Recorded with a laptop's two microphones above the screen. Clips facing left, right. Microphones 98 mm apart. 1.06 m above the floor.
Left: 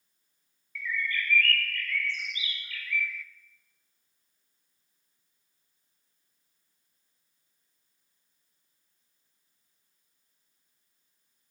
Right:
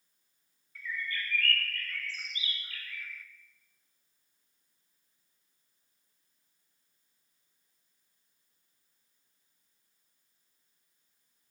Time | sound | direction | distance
0.8 | a bird | 40° right (ahead or behind) | 0.6 m